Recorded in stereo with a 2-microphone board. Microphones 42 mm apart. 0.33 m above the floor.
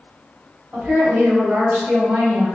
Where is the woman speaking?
40° right (ahead or behind), 1.7 m; by 2.5 s 60° right (ahead or behind), 2.5 m.